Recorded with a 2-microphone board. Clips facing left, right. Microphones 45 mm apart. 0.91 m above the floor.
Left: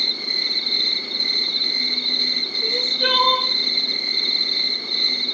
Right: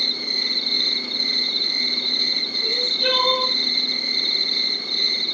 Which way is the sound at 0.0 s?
5° left (ahead or behind).